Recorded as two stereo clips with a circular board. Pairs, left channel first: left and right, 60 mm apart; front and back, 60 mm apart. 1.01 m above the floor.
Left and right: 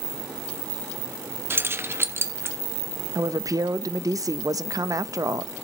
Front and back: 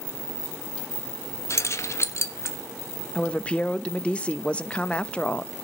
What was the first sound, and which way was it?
Keys jangling, 40° right.